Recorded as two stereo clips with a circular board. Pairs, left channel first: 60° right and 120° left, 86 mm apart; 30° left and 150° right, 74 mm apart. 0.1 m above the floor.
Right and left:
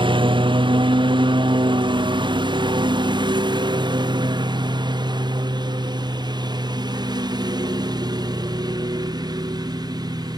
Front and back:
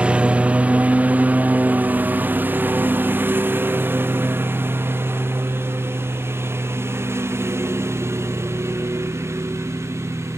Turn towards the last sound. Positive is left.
turn(degrees=160)